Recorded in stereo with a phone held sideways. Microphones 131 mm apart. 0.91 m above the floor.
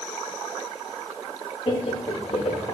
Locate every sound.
1.7 s laughter: 45° left (ahead or behind), 2.5 m; by 2.7 s 55° left (ahead or behind), 3 m